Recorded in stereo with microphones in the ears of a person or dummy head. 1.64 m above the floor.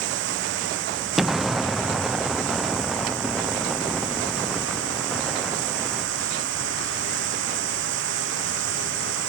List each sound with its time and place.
0.0 s running water: 75° right (ahead or behind)
1.2 s an explosion: 5° left (ahead or behind)